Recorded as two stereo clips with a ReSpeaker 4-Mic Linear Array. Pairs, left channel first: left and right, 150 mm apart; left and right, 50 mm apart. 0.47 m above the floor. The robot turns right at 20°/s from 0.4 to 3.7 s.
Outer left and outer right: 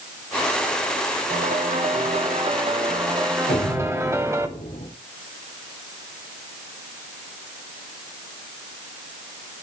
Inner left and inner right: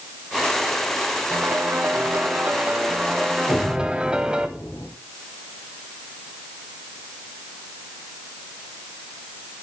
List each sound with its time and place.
1.3 s a piano: 65° right, 1.5 m; by 4.5 s 20° right, 1.5 m
3.5 s an explosion: 55° left (ahead or behind), 4 m; by 4.9 s 60° left (ahead or behind), 4 m